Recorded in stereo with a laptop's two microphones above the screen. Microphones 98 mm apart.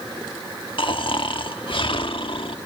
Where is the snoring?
60° left (ahead or behind), 1.3 m.